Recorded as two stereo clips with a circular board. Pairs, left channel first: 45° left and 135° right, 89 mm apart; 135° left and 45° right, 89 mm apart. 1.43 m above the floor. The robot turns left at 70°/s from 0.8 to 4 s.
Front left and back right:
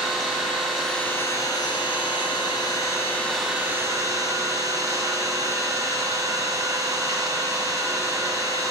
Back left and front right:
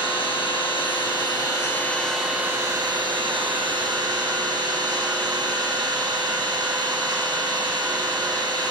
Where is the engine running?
135° left, 3.5 m; by 8.7 s 85° right, 3.5 m.